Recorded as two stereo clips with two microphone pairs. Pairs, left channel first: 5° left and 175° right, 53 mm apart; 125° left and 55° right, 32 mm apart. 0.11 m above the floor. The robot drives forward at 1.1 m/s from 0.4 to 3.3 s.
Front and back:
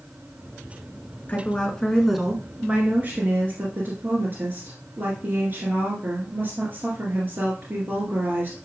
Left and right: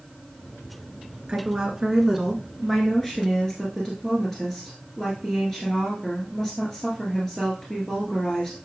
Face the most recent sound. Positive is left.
turn(degrees=-170)